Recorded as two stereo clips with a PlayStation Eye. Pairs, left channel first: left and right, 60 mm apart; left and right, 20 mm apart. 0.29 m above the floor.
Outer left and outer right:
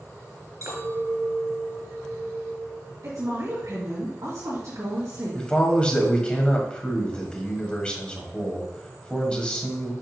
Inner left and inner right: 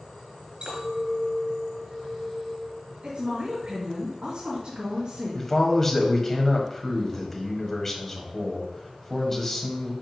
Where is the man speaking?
15° left (ahead or behind), 1.4 m.